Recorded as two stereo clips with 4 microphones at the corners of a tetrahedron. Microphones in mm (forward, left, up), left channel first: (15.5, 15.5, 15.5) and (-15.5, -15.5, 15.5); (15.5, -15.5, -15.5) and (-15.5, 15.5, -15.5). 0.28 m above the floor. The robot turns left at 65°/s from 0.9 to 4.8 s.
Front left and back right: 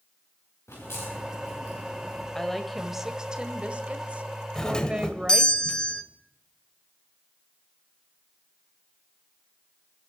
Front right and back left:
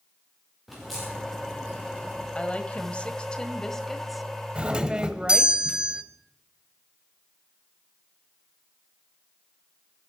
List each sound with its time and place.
0.7 s a crack: 45° left, 8 m; by 2.2 s 45° right, 8 m
2.4 s a woman speaking: 20° right, 1.4 m; by 5.5 s straight behind, 1.4 m
4.5 s a doorbell: 105° left, 1.4 m; by 6.0 s 90° left, 1.4 m